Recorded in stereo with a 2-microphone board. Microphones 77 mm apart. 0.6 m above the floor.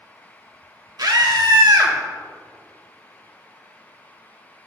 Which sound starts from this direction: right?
A scream, at 1.0 s.